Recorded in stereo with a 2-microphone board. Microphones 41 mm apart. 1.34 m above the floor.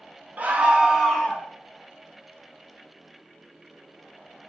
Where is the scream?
45° right (ahead or behind), 0.6 m; by 1.4 s 25° left (ahead or behind), 0.6 m.